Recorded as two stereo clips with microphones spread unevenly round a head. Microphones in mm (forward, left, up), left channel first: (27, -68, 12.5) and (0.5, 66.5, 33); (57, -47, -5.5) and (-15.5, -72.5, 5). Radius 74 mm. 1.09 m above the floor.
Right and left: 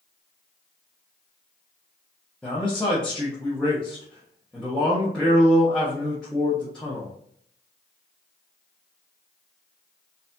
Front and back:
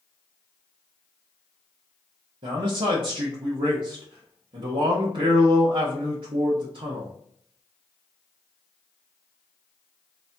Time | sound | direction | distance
2.4 | a man speaking | 165° right | 1.1 m